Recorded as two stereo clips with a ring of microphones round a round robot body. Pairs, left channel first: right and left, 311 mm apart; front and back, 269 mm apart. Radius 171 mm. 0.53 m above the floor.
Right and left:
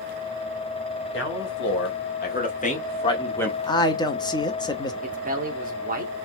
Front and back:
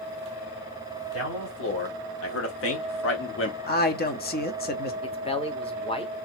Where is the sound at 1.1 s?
40° right, 3 m; by 3.6 s 5° right, 1.3 m.